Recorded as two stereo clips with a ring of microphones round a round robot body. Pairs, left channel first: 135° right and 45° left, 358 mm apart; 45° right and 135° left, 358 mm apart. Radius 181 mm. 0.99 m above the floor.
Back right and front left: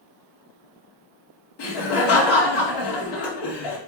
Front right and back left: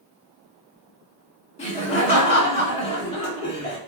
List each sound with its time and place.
1.6 s laughter: 120° right, 1.9 m